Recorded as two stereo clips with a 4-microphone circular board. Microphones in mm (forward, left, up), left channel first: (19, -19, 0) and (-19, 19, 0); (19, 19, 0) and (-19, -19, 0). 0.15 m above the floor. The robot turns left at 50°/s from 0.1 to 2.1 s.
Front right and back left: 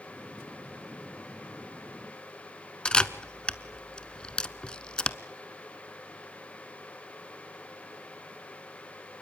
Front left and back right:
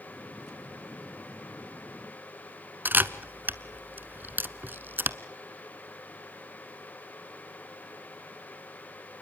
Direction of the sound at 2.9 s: 110° right.